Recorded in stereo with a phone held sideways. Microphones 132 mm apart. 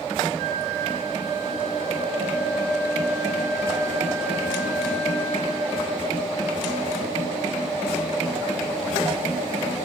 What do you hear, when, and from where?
0.4 s a flute: 60° left (ahead or behind), 7 m